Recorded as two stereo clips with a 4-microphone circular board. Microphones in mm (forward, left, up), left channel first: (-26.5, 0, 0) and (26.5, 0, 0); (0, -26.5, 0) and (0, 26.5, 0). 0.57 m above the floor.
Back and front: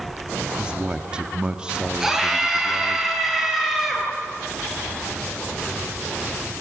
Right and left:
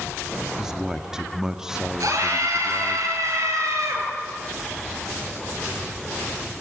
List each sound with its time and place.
0.6 s a man speaking: 30° left, 0.8 m
2.0 s a scream: 75° left, 8.5 m